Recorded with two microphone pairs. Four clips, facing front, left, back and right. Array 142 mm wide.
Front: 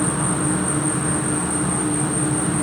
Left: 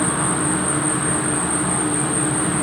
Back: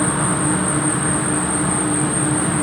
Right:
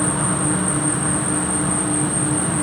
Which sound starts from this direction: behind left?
An insect, at 0.0 s.